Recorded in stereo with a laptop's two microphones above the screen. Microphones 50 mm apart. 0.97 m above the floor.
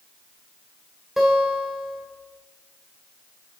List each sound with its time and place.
1.2 s a guitar: 5° right (ahead or behind), 2.5 m